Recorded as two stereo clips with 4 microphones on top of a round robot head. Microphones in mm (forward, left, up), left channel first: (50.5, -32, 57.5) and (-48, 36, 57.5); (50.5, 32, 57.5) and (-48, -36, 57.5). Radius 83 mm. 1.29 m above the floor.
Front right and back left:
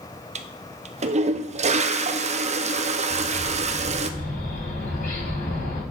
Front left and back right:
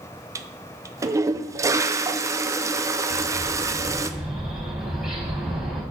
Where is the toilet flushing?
155° left, 0.7 m.